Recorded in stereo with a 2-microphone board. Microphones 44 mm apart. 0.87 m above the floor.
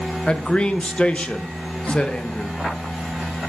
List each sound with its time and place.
0.3 s a man speaking: 30° left (ahead or behind), 0.7 m